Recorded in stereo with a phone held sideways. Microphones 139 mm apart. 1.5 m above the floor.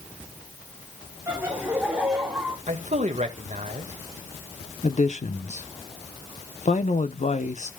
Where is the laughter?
15° right (ahead or behind), 3.5 m; by 2.6 s 10° right (ahead or behind), 4 m.